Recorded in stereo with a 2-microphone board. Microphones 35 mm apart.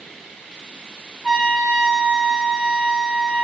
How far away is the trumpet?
About 1.8 m.